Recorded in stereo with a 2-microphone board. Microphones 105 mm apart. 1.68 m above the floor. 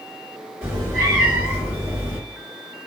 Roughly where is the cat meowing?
Right.